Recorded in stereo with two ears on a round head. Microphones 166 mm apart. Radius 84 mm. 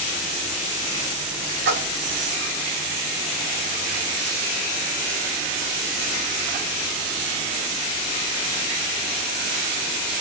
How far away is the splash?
About 2.5 m.